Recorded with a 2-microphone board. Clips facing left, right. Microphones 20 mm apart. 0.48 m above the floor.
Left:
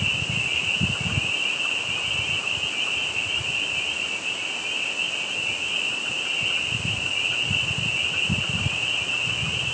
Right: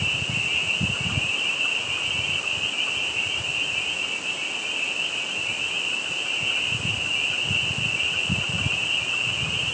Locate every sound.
Only background noise.